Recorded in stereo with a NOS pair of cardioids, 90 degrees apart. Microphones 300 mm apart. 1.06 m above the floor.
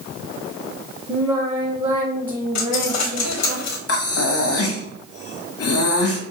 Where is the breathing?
50° left, 1.0 m.